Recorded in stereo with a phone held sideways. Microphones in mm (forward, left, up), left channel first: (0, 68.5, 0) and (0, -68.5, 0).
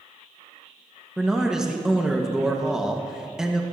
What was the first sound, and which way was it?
A man speaking, 5° right (ahead or behind).